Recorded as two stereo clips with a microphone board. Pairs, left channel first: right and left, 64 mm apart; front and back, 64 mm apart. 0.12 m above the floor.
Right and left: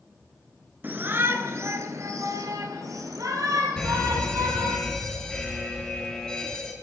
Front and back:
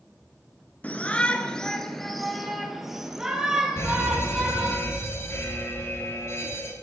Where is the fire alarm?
20° right, 3.5 m.